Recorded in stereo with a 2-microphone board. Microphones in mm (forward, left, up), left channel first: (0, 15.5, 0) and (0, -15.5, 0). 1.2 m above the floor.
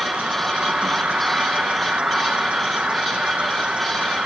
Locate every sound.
0.0 s an insect: 45° right (ahead or behind), 0.8 m